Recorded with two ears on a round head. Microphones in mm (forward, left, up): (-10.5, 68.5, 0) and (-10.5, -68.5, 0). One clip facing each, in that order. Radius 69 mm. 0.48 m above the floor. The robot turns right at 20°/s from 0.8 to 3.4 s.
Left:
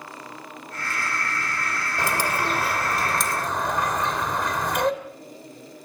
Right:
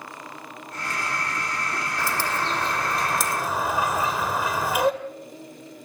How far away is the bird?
About 2 m.